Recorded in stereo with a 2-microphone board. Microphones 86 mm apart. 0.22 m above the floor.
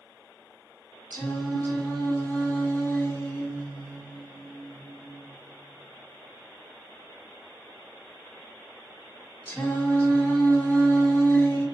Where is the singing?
20° left (ahead or behind), 1.1 m.